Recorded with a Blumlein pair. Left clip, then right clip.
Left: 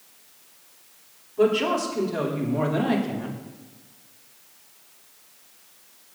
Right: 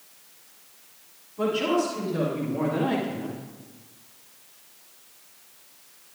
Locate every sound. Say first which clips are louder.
1.4 s a woman speaking: left 3 dB; 70° left, 2.5 m